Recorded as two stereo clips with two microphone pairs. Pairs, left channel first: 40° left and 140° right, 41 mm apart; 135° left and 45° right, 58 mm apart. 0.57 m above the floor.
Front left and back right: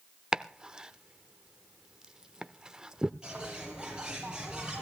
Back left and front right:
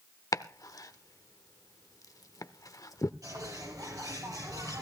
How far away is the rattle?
No rattle in this recording.